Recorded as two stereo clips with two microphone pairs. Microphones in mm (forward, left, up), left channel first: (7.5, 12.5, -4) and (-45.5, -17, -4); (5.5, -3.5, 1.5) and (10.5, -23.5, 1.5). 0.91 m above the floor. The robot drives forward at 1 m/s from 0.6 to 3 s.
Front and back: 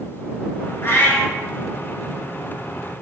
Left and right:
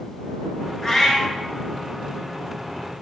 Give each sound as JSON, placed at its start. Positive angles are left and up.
{"t": 0.8, "sound": "a cat meowing", "azimuth_deg": 40, "distance_m": 1.0}